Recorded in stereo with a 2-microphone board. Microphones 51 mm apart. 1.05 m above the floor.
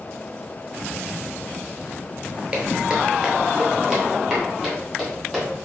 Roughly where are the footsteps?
Right.